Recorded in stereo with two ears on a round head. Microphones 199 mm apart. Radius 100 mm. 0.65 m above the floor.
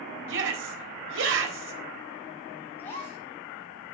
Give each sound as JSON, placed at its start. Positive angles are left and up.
{"t": 0.3, "sound": "a shout", "side_deg": -60, "distance_m": 3.5}
{"t": 2.8, "sound": "a gasp", "side_deg": 10, "distance_m": 6.0}